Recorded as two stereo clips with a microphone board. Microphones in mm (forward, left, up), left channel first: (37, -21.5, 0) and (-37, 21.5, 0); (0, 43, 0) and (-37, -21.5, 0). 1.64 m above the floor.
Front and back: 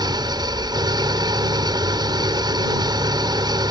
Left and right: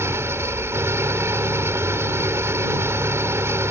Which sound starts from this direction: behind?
An engine running, at 0.0 s.